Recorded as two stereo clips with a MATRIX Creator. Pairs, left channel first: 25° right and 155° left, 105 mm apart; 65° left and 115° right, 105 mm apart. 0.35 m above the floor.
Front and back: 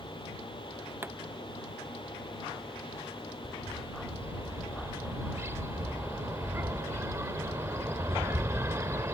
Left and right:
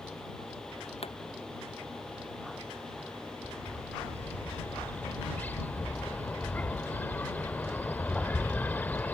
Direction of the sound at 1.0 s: 90° left.